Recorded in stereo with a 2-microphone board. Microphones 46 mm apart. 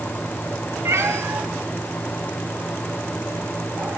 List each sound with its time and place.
0.8 s a cat meowing: 75° right (ahead or behind), 1.5 m; by 4.0 s 50° right (ahead or behind), 3 m